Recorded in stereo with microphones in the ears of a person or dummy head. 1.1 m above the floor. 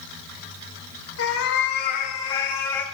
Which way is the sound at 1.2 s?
80° left.